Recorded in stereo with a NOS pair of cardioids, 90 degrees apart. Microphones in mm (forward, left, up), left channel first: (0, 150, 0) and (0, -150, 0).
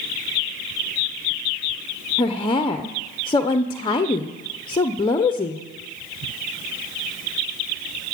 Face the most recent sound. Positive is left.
turn(degrees=15)